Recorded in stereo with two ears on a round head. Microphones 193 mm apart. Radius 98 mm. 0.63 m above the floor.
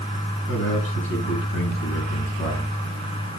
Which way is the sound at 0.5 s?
65° left (ahead or behind).